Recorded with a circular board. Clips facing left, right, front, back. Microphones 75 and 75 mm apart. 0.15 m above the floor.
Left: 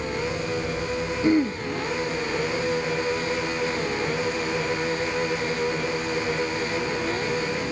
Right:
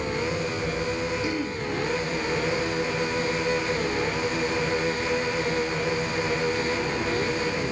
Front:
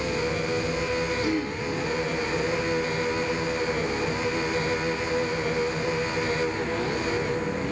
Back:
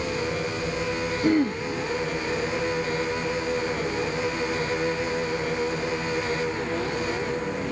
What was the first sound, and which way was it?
Throat clearing, 140° left.